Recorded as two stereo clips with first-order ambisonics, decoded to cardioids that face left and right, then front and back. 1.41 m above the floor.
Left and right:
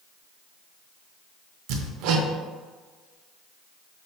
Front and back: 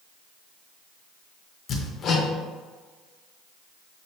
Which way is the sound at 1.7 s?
65° right.